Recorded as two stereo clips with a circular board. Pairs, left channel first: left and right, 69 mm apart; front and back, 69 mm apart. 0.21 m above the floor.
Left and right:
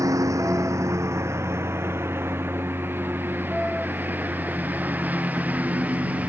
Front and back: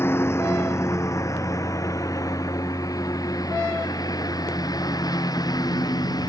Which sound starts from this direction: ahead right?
A lawn mower, at 0.0 s.